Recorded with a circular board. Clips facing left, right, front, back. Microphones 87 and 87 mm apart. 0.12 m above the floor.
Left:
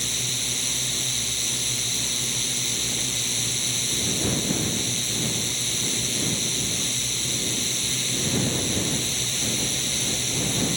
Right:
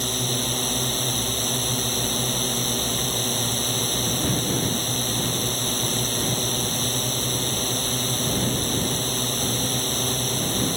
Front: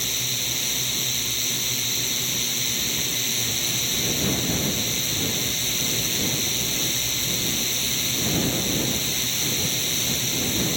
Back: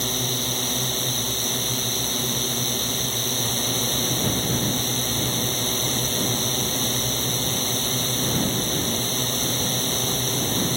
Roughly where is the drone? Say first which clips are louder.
Right 8 dB, back 6 dB; behind right.